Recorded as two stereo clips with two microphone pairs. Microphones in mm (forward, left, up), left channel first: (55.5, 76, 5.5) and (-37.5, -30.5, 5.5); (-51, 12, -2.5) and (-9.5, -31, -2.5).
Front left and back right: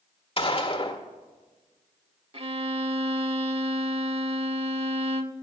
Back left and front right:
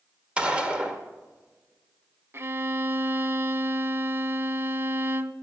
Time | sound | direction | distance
0.4 | a gunshot | 20° left | 1.3 m
2.3 | a violin | 90° right | 0.5 m